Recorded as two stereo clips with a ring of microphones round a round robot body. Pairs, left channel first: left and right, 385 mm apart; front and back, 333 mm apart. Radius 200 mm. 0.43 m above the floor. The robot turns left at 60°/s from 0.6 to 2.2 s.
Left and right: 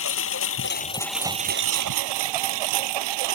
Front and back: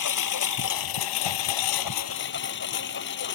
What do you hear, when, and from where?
0.0 s a lawn mower: 30° left; by 3.4 s 65° right